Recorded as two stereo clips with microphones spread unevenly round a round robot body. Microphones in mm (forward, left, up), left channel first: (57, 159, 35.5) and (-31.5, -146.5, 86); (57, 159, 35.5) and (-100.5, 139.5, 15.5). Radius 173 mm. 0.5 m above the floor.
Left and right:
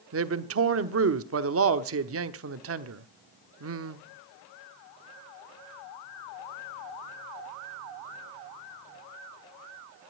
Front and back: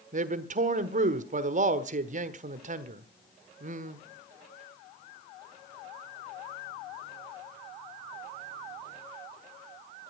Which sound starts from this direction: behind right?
A man speaking, at 0.1 s.